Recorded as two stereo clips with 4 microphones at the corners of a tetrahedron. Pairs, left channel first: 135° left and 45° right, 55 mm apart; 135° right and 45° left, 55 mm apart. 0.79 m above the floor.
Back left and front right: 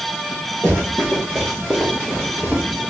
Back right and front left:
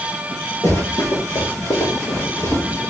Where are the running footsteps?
150° right, 3 m; by 2.8 s 130° right, 3.5 m.